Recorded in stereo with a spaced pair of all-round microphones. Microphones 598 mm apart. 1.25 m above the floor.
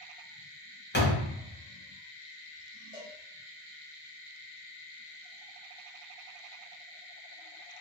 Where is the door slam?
20° left (ahead or behind), 0.6 m.